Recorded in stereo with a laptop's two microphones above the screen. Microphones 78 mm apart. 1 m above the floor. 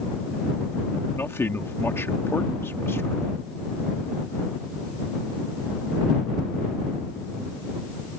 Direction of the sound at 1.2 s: 30° left (ahead or behind).